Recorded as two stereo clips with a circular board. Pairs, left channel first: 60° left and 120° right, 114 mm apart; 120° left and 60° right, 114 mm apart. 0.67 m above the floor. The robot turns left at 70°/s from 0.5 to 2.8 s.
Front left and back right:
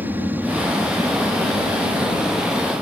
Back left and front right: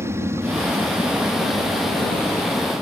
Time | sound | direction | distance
0.0 | an aircraft | 75° right | ?